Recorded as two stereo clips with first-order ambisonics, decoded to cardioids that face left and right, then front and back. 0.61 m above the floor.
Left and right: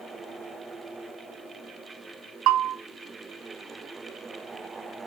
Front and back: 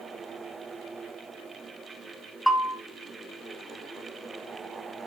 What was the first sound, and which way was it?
A bell, 95° right.